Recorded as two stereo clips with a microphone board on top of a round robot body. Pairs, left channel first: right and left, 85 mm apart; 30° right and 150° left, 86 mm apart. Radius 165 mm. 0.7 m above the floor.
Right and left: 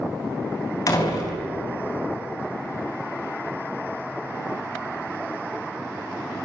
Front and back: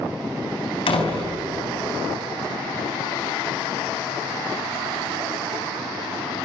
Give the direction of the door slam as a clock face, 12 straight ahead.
1 o'clock.